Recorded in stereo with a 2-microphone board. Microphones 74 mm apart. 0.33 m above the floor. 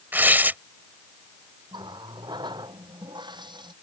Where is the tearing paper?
25° right (ahead or behind).